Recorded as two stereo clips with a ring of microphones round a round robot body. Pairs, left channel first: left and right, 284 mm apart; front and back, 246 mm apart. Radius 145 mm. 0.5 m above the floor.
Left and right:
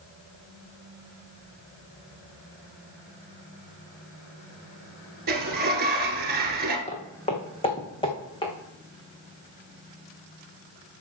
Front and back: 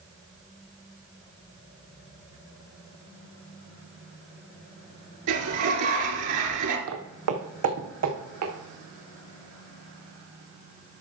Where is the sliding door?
150° right, 1.9 m.